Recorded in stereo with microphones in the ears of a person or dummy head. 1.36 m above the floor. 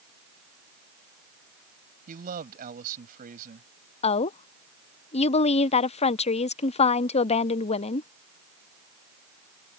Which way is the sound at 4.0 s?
35° left (ahead or behind).